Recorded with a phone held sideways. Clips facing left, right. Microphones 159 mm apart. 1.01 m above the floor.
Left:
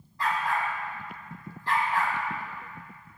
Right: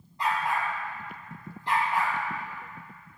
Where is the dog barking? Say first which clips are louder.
Even; 20° right (ahead or behind), 2.5 m.